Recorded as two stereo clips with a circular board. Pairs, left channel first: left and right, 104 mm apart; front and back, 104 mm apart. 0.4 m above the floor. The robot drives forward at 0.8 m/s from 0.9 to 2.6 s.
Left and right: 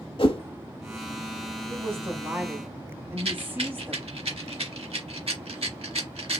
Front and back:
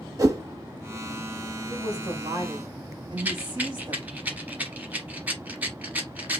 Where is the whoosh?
120° left, 0.9 m.